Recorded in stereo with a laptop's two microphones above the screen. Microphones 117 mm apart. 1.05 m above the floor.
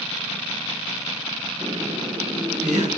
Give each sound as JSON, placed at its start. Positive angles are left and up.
{"t": 1.6, "sound": "laughter", "side_deg": -80, "distance_m": 4.0}